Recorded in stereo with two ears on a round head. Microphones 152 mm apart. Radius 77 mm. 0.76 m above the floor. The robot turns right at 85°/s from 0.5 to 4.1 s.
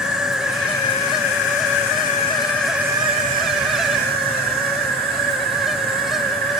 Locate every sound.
0.0 s an insect: 5° right, 1.1 m; by 6.6 s 60° right, 1.1 m